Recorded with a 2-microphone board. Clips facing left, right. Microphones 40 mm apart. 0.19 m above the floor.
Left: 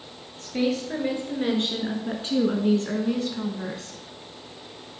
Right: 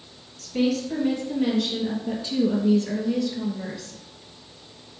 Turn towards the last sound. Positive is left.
turn(degrees=45)  # may be behind; listen again after turning